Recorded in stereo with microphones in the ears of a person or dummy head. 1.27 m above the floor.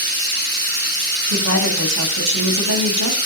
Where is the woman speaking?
75° right (ahead or behind), 7.5 m.